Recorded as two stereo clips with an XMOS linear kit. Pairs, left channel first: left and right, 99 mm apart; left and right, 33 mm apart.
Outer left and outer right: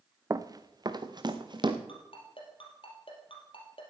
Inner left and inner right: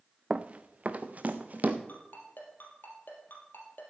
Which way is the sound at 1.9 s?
65° left (ahead or behind).